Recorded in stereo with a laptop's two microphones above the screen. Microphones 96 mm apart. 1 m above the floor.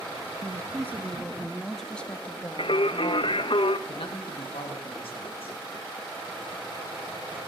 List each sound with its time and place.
0.4 s a woman speaking: 35° right (ahead or behind), 1.0 m; by 3.5 s 35° left (ahead or behind), 1.6 m
2.6 s singing: 65° left (ahead or behind), 0.5 m
3.9 s a man speaking: 70° left (ahead or behind), 1.5 m